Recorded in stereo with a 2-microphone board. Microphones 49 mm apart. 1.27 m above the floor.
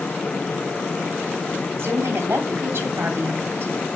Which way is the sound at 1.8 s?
60° right (ahead or behind).